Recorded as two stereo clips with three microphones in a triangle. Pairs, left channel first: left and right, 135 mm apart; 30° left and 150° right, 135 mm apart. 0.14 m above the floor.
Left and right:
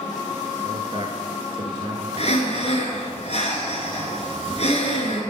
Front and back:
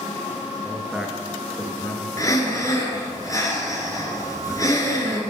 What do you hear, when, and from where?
0.6 s a man speaking: 75° right, 1.5 m; by 2.1 s 45° right, 1.7 m
2.2 s breathing: 85° left, 1.5 m